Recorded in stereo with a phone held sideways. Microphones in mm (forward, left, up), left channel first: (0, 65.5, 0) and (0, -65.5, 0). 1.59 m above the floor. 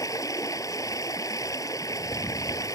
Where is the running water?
25° left (ahead or behind).